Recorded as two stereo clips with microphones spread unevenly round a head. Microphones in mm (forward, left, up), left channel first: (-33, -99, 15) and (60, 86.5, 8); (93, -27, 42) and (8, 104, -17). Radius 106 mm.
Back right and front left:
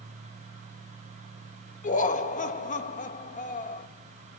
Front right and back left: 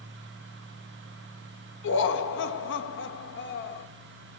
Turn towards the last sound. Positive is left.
turn(degrees=-60)